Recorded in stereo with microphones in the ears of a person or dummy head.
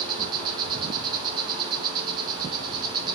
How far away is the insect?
About 2.5 m.